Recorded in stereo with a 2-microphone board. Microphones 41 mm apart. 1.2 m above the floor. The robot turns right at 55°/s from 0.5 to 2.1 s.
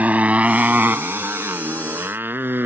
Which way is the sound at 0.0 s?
40° right (ahead or behind).